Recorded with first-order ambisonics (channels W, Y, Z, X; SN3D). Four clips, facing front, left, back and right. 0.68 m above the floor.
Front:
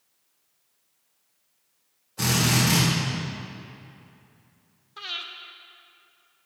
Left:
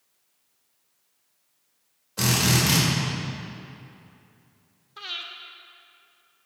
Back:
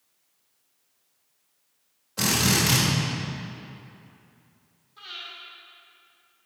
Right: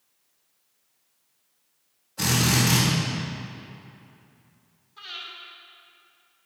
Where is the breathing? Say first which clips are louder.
Left 3 dB, front 5 dB; 40° left, 0.9 m.